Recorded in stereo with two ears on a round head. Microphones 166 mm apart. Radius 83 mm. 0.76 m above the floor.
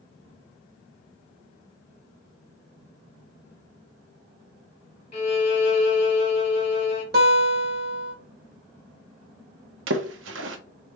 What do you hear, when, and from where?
5.1 s a violin: 35° left (ahead or behind), 1.2 m
7.1 s a guitar: 60° right (ahead or behind), 1.7 m
9.9 s a splash: 70° right (ahead or behind), 0.7 m